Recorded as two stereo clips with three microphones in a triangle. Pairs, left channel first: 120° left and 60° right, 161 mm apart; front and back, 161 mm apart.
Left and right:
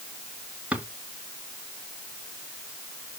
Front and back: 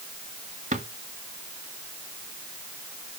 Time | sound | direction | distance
0.7 | a drawer | 140° right | 1.7 m